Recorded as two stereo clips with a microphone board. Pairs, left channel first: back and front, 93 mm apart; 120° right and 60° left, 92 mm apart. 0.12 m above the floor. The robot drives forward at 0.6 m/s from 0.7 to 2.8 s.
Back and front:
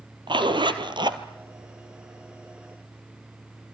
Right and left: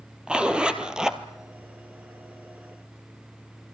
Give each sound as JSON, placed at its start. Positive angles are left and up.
{"t": 0.3, "sound": "a zipper", "azimuth_deg": -20, "distance_m": 1.6}